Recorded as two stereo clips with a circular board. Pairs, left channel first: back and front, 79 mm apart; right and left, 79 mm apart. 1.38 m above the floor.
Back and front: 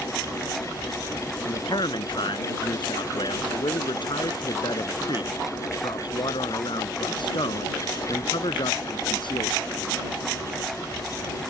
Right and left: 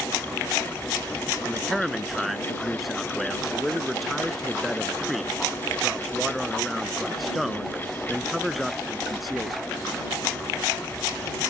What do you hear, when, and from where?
1.4 s a man speaking: straight behind